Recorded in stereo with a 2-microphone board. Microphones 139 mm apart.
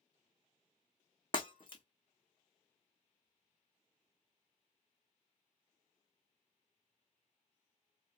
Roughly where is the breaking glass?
Left.